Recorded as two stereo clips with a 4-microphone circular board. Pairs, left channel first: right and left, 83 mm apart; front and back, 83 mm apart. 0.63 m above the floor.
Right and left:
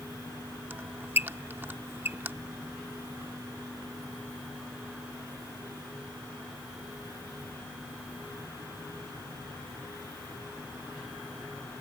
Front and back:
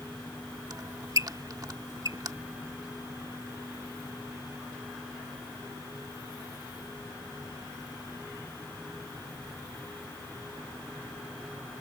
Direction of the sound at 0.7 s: 150° left.